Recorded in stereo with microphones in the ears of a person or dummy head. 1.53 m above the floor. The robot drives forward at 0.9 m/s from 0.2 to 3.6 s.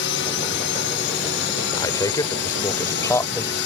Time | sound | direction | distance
0.0 | a drone | 55° left (ahead or behind) | ?
1.8 | a man speaking | 20° left (ahead or behind) | ?